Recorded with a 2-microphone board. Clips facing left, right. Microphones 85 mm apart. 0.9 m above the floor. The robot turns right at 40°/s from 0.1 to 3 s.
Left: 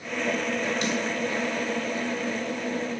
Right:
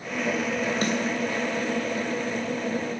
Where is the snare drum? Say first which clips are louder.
Right 2 dB; 40° right (ahead or behind), 2.5 m; by 1.0 s 50° right (ahead or behind), 2.5 m.